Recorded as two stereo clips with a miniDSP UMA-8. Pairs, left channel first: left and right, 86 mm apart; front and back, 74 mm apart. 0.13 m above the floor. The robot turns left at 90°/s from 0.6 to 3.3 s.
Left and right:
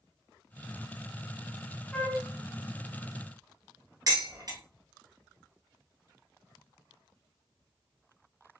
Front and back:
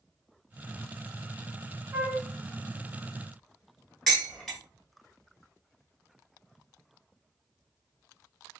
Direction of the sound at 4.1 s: 85° right.